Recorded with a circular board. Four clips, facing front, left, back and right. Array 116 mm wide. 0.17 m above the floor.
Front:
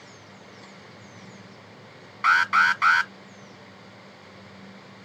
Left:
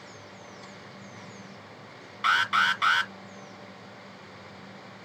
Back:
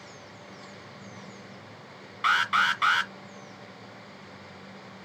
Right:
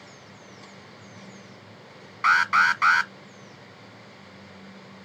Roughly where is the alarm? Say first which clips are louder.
Right 4 dB, front 4 dB; ahead right.